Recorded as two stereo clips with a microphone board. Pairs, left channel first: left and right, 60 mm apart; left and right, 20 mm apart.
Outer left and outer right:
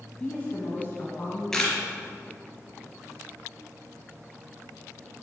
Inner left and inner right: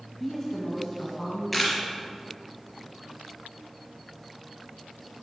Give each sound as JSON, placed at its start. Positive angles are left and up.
{"t": 0.2, "sound": "a woman speaking", "side_deg": 20, "distance_m": 1.5}
{"t": 1.5, "sound": "a camera shutter", "side_deg": 10, "distance_m": 3.0}